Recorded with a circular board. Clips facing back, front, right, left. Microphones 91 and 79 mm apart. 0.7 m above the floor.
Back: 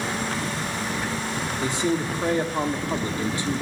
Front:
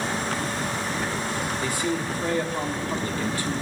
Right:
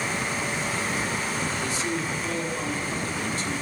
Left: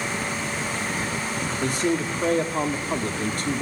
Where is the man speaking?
115° left, 1.2 m.